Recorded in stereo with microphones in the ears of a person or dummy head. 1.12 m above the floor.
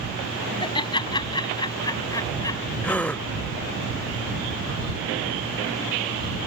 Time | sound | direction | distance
0.6 | laughter | 20° left (ahead or behind) | ?
2.8 | a gasp | 5° left (ahead or behind) | ?